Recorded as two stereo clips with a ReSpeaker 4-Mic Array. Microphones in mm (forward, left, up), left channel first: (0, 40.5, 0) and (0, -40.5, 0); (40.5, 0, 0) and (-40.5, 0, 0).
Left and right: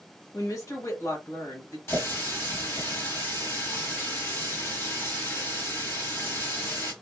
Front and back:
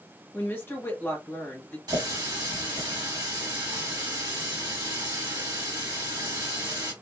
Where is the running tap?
150° left, 1.6 m.